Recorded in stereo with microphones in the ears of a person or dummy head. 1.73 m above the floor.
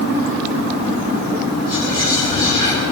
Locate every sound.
1.6 s whispering: 25° left (ahead or behind), 6 m